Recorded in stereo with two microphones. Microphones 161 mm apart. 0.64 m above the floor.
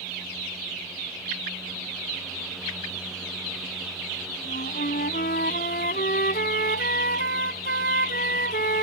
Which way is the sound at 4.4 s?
80° left.